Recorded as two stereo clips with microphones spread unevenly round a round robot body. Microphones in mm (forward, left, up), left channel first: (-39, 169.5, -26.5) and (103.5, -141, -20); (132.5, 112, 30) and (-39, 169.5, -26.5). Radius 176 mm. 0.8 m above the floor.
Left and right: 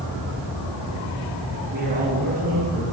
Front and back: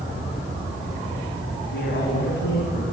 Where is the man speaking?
5° right, 6 m; by 2.8 s straight ahead, 5 m.